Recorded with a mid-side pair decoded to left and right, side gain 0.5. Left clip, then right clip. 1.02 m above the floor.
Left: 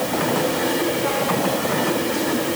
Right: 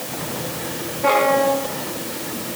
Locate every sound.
Only background noise.